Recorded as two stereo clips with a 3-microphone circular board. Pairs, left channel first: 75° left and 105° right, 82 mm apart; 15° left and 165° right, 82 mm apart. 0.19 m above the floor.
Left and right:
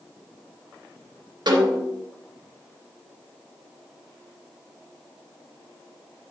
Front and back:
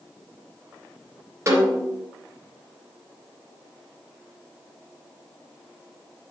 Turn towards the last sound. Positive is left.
turn(degrees=-120)